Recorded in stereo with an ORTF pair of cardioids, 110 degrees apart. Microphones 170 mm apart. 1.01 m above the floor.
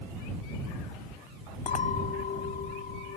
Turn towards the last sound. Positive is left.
turn(degrees=45)